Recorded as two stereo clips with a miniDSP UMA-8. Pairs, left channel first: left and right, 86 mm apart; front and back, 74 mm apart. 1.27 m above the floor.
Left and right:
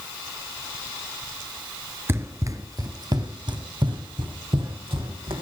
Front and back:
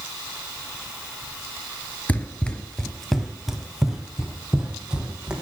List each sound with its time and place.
2.1 s running footsteps: 55° right, 1.4 m; by 5.4 s 100° right, 3.5 m